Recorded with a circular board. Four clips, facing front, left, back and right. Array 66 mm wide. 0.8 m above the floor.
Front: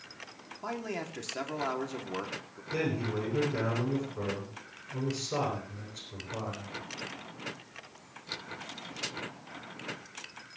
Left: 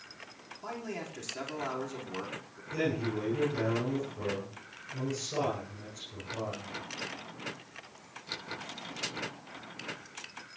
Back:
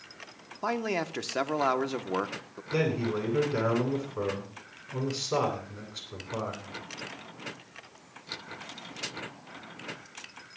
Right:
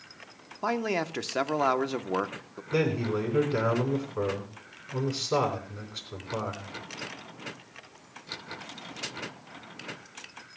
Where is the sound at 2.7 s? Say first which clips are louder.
Right 5 dB, back 4 dB; 115° right, 10 m.